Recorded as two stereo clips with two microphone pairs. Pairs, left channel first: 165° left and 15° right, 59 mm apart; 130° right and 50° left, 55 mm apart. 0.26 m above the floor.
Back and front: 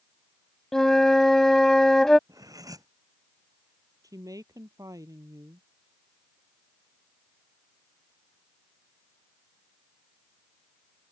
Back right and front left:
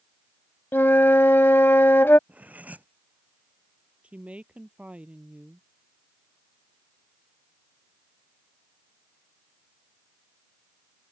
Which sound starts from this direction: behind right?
A flute, at 0.7 s.